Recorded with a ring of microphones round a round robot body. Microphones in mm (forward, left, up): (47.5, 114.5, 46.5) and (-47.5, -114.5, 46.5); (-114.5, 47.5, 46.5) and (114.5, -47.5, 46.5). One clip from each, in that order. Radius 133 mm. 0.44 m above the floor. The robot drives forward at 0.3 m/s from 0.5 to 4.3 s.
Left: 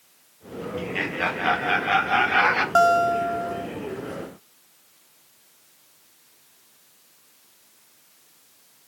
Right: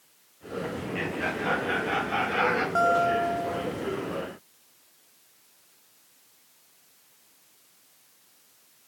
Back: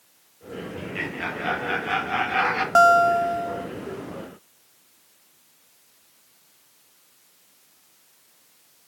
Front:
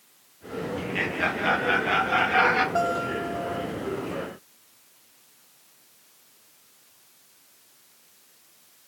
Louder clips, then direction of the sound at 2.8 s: Left 5 dB, back 10 dB; 130° left.